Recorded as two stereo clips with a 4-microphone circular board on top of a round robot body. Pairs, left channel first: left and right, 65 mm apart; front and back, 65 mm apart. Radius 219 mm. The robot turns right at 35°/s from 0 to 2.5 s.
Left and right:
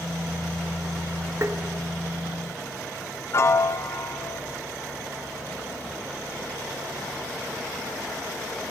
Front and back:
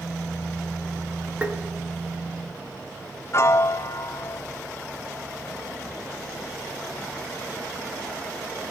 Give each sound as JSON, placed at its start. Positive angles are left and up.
{"t": 1.4, "sound": "tapping", "azimuth_deg": -120, "distance_m": 1.3}
{"t": 3.3, "sound": "a piano", "azimuth_deg": 45, "distance_m": 0.5}